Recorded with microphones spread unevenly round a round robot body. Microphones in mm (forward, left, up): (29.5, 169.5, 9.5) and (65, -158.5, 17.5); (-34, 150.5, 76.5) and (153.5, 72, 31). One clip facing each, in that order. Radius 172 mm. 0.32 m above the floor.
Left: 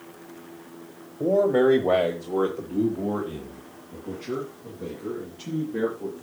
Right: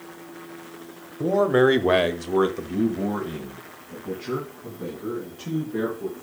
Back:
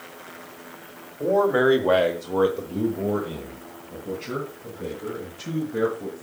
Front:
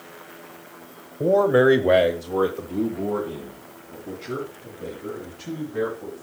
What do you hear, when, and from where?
1.2 s a man speaking: 25° right, 1.4 m; by 6.2 s 160° right, 4.5 m